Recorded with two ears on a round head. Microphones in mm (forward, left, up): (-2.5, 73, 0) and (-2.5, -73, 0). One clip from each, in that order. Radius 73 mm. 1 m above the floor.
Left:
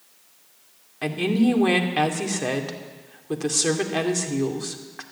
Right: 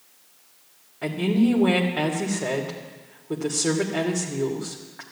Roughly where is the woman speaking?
Left.